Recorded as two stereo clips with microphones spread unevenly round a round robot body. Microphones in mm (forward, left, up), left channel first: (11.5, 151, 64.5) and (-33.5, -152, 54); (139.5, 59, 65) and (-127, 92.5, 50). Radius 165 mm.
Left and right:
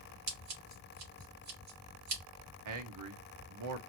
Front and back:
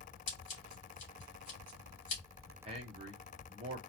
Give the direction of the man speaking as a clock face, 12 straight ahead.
4 o'clock.